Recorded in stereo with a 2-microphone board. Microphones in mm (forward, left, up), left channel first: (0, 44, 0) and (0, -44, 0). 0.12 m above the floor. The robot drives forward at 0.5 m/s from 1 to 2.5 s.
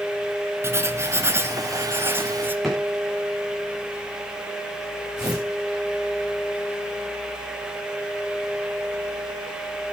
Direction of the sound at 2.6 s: Centre (ahead or behind).